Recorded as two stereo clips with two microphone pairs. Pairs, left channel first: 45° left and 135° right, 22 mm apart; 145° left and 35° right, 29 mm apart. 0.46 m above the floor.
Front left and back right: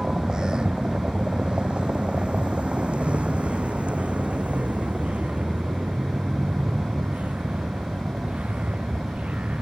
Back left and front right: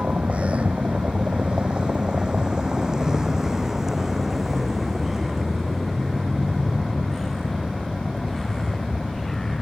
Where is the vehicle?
75° right; by 9.6 s 135° right.